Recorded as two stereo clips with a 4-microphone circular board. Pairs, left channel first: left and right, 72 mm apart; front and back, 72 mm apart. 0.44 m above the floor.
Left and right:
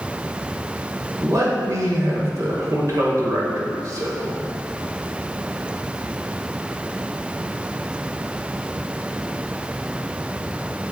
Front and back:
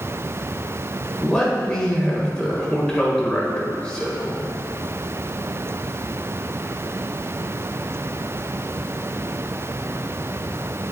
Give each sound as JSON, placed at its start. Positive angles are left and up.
{"t": 1.2, "sound": "a man speaking", "azimuth_deg": -75, "distance_m": 1.5}